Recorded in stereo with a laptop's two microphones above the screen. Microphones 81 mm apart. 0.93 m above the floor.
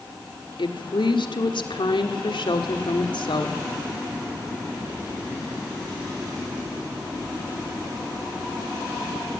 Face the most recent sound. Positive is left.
turn(degrees=80)